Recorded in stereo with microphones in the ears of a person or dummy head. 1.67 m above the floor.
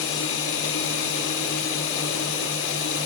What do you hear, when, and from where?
0.0 s running water: 80° left, 4 m